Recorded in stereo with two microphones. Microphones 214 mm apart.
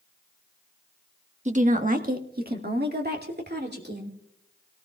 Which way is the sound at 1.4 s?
35° right (ahead or behind).